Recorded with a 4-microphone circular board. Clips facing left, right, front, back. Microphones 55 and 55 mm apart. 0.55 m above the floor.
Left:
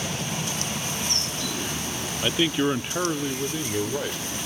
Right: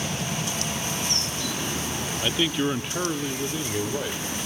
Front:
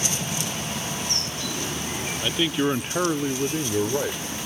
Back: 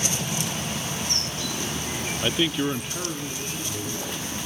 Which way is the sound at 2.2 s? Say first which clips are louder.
Left 2 dB, front 1 dB; 150° left.